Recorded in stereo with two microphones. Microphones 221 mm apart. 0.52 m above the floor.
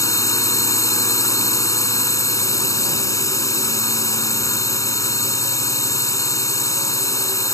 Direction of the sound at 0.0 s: 15° left (ahead or behind).